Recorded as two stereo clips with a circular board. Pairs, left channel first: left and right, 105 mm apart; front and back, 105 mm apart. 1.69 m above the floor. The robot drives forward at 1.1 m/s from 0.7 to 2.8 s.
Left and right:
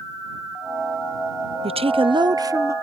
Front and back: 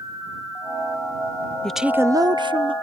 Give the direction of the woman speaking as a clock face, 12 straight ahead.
3 o'clock.